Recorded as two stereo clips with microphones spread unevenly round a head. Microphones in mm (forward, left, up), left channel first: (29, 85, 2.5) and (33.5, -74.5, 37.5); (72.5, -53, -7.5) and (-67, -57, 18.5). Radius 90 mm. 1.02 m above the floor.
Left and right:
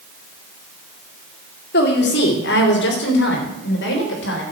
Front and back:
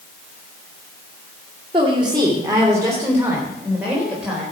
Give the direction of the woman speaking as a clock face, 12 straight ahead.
8 o'clock.